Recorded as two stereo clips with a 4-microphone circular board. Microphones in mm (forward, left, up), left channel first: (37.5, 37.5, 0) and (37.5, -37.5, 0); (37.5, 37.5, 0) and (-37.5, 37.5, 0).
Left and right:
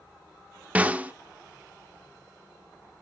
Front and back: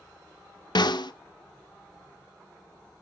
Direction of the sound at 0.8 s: 20° right.